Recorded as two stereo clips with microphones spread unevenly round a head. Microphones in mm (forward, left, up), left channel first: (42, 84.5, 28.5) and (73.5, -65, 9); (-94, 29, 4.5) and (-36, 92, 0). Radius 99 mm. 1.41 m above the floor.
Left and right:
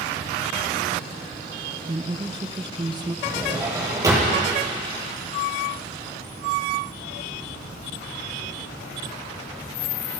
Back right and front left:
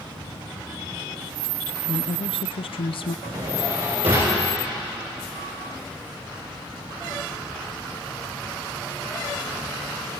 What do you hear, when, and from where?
1.9 s a woman speaking: 145° right, 0.7 m
3.2 s a drawer: 10° right, 10 m